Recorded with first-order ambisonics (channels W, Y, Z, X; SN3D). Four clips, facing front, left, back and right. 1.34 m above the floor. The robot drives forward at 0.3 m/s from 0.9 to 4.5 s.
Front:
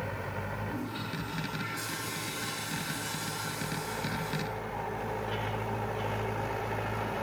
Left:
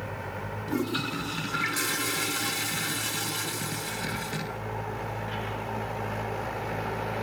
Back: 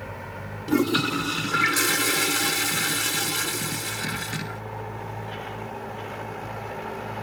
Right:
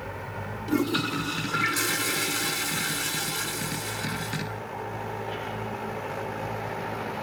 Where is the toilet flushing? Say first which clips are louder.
Right 4 dB, back 14 dB; 165° right, 0.5 m; by 4.6 s 175° right, 1.6 m.